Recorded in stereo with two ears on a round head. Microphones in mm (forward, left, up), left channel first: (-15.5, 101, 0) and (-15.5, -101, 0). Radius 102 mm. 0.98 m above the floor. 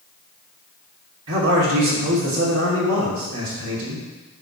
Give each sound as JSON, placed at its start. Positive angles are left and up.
{"t": 1.3, "sound": "a man speaking", "side_deg": -70, "distance_m": 3.0}